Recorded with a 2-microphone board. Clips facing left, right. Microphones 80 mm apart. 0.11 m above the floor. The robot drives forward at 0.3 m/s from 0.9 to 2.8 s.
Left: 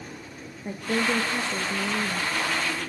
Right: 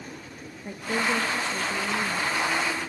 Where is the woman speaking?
15° left (ahead or behind), 2.0 m.